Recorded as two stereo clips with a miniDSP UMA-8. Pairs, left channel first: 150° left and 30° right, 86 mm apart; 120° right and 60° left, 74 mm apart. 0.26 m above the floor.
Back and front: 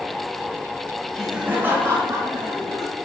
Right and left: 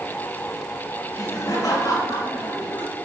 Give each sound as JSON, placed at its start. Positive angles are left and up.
{"t": 1.1, "sound": "laughter", "azimuth_deg": -130, "distance_m": 1.1}